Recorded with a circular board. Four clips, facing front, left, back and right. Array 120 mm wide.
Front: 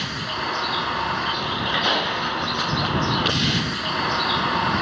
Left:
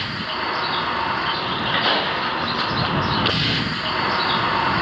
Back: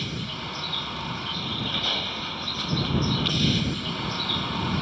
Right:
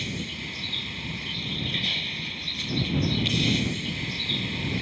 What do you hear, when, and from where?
0.0 s a vehicle: 60° left